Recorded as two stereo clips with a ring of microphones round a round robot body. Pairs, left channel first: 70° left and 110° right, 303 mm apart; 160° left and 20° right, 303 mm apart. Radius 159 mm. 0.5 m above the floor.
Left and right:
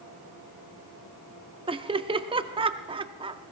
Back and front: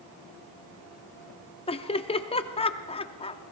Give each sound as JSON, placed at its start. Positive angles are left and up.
{"t": 1.7, "sound": "laughter", "azimuth_deg": -160, "distance_m": 0.7}